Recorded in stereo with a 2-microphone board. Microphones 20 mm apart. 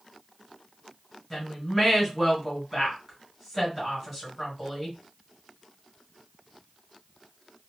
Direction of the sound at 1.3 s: 10° left (ahead or behind).